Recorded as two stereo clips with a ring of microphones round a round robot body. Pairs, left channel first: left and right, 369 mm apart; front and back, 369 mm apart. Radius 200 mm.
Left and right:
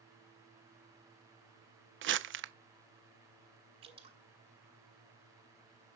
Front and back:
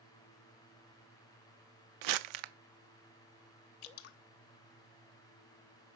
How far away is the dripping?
About 0.9 m.